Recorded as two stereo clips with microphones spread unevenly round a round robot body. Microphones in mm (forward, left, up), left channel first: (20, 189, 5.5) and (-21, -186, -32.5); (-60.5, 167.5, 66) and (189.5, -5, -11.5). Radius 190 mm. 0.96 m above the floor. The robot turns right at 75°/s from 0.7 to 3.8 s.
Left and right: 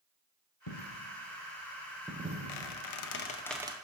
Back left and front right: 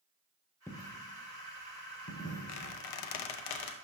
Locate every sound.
0.7 s a dropped coin: 75° left, 1.6 m; by 3.3 s 95° right, 1.6 m
2.5 s a squeak: 95° left, 0.6 m; by 3.7 s 170° right, 0.6 m